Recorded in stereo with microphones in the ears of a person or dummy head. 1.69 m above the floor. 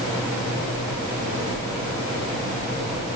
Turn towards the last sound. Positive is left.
No sound to turn to.